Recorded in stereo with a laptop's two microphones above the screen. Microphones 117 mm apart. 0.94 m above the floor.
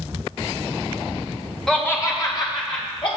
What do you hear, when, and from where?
1.7 s laughter: 5° left (ahead or behind), 1.0 m; by 3.1 s 50° left (ahead or behind), 2.5 m